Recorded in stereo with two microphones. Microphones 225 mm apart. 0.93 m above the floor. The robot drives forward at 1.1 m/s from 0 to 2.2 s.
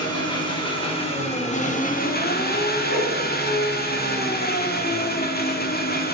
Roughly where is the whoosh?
Right.